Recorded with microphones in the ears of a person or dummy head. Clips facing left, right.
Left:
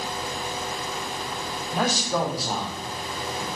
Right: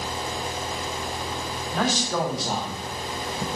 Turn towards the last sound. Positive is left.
turn(degrees=-40)  # may be behind; listen again after turning